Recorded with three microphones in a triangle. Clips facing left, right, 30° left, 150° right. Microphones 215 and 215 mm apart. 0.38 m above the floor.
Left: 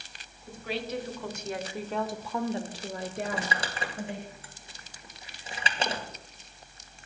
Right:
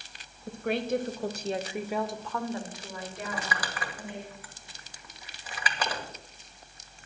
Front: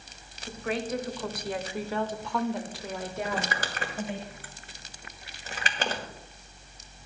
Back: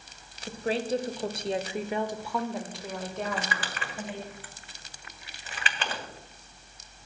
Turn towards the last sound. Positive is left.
turn(degrees=40)